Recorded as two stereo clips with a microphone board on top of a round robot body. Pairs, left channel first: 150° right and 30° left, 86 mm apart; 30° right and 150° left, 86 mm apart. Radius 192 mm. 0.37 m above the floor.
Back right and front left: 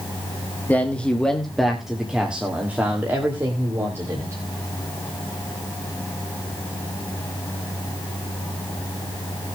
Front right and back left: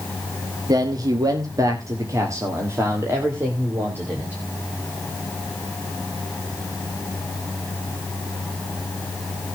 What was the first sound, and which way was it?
A man speaking, 145° left.